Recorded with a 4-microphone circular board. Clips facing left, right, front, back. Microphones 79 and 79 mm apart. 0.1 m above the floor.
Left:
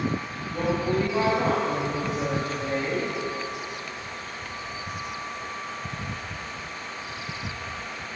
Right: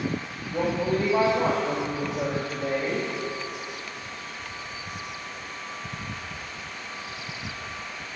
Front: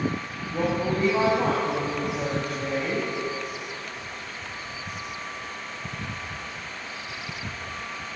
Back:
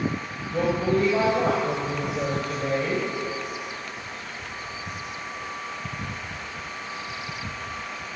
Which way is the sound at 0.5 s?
155° right.